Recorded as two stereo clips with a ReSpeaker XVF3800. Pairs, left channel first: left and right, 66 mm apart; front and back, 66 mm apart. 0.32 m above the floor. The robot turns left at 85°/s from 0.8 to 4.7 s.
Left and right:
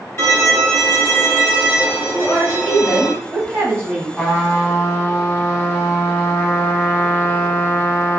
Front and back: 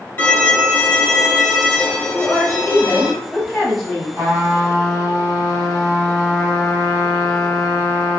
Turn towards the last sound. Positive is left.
turn(degrees=95)